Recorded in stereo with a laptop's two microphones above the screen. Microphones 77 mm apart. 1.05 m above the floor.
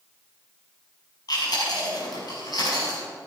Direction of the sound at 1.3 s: 60° left (ahead or behind).